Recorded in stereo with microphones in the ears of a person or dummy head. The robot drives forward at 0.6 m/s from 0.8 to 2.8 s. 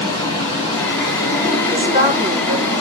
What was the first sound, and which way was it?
Running water, 35° right (ahead or behind).